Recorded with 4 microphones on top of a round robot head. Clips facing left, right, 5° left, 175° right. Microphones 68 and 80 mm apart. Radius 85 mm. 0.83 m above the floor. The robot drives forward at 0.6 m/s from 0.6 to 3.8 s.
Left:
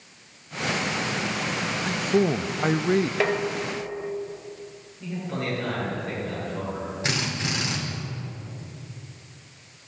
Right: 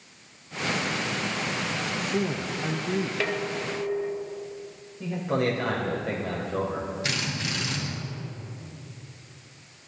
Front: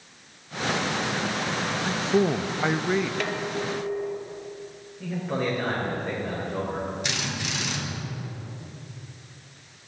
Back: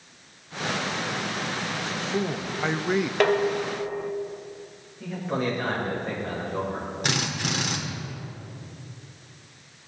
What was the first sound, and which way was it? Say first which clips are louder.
A man speaking: left 8 dB, front 7 dB; 45° left.